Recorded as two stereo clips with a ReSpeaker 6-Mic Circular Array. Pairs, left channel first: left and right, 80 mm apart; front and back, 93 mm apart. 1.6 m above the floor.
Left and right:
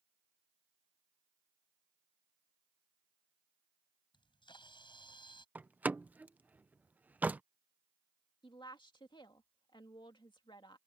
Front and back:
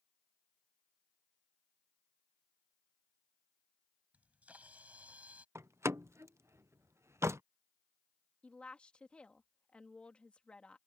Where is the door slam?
145° right.